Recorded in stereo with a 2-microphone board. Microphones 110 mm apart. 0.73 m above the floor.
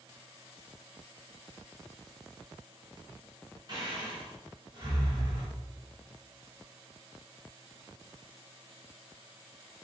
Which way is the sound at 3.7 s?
40° right (ahead or behind).